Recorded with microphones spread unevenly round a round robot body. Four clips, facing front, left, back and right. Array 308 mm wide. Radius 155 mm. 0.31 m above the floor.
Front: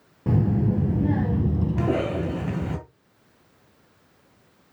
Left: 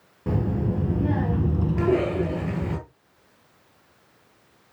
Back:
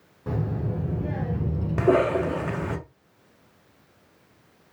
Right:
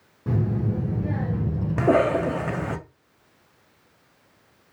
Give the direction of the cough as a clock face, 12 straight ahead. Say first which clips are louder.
Right 4 dB, back 7 dB; 3 o'clock.